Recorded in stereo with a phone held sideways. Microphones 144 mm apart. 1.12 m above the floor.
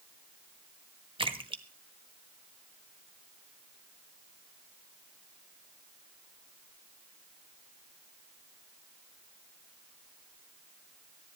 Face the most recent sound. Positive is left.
turn(degrees=-35)  # may be behind; listen again after turning